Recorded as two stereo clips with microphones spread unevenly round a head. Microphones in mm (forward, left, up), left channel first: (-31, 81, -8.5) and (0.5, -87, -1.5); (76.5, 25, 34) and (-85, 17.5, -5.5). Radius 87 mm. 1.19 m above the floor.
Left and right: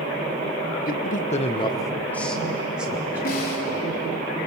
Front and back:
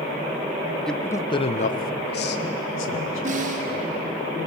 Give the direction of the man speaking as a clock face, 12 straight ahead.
9 o'clock.